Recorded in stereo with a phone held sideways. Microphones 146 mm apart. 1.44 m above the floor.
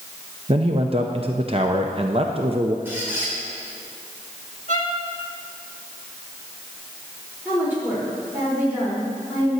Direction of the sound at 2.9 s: 15° right (ahead or behind).